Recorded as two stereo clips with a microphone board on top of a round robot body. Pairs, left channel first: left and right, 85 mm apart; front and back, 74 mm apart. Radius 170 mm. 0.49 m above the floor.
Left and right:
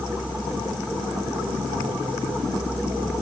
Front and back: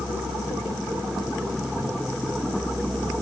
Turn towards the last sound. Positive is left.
No sound to turn to.